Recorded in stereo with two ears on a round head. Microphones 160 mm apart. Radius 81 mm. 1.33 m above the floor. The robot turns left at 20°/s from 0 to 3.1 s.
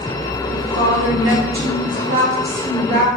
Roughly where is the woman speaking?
Right.